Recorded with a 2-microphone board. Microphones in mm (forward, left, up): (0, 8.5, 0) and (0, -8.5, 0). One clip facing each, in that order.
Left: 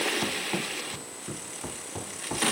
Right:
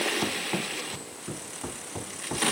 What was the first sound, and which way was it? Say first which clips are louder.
Running footsteps: even; 5° right (ahead or behind).